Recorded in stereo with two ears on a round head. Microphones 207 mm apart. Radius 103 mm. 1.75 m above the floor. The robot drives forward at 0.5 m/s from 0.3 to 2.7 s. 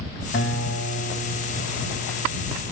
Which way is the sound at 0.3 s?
45° left (ahead or behind).